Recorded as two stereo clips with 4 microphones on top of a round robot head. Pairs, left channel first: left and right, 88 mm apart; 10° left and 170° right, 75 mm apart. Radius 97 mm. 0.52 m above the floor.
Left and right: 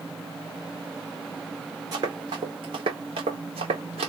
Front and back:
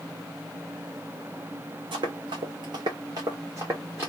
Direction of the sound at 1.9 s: 150° right.